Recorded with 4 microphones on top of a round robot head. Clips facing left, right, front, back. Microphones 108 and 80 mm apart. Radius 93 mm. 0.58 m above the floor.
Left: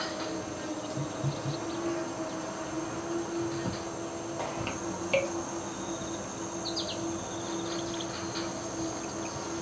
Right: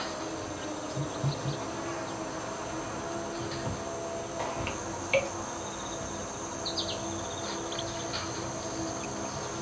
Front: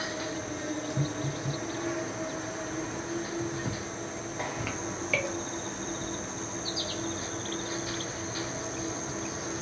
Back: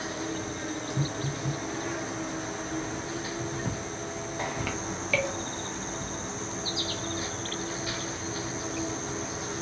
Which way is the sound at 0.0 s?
90° left.